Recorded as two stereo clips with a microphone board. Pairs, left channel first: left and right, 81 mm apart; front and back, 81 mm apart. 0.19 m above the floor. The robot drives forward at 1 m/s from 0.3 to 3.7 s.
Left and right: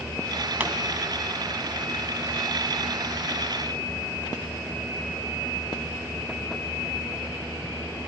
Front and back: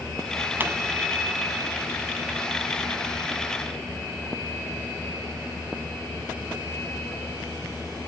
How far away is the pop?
About 1.7 m.